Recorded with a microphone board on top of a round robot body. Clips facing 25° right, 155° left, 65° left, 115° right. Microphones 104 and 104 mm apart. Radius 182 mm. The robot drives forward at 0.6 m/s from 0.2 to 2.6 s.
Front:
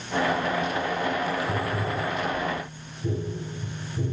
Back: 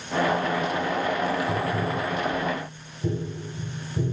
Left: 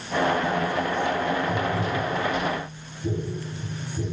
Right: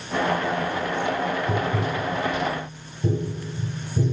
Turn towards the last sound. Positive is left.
turn(degrees=-145)